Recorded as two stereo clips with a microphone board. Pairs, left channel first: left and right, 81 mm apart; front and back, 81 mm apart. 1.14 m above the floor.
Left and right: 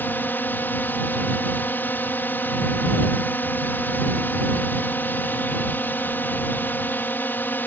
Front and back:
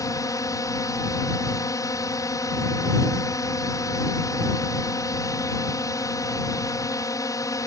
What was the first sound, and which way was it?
A drone, 30° left.